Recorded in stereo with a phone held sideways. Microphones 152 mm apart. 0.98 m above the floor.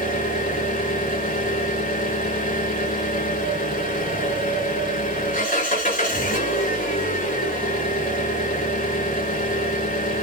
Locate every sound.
0.0 s an engine running: 65° left (ahead or behind), 5.5 m